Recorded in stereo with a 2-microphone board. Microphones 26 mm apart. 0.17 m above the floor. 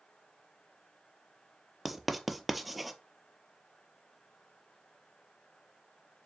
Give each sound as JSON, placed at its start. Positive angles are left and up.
{"t": 1.9, "sound": "writing", "side_deg": -5, "distance_m": 0.6}